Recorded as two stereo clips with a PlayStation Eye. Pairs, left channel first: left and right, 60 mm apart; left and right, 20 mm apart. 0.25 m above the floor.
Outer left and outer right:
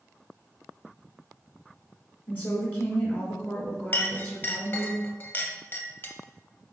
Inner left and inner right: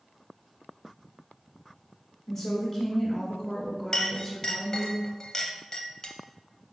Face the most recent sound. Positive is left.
turn(degrees=35)  # may be behind; listen again after turning